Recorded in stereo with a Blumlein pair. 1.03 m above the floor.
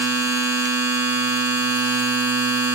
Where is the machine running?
50° right, 0.9 m.